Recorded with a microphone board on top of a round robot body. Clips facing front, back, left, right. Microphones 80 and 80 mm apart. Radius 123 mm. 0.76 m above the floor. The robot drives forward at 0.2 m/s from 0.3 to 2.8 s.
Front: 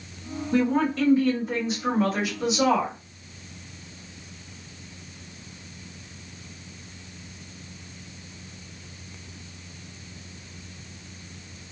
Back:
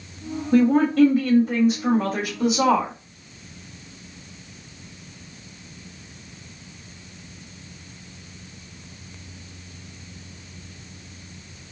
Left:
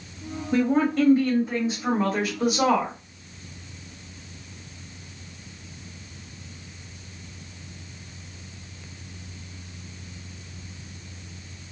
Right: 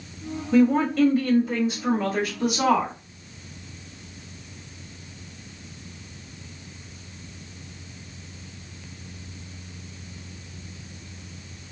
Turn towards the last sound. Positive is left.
turn(degrees=165)